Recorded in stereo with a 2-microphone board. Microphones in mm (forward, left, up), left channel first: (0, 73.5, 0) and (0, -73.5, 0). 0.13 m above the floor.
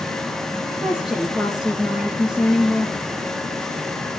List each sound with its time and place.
0.7 s a woman speaking: centre (ahead or behind), 3 m